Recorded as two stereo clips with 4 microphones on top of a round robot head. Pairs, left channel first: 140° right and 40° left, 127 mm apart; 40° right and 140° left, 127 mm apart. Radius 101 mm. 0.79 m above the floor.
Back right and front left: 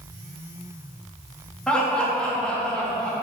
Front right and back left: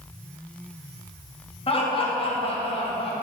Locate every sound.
1.7 s laughter: 60° right, 1.5 m